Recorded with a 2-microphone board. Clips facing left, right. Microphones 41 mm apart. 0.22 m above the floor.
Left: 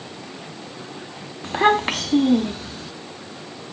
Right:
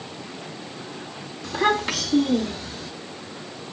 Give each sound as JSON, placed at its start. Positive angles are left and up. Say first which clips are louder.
{"t": 1.4, "sound": "a child speaking", "louder": "left 4 dB", "side_deg": 40, "distance_m": 1.0}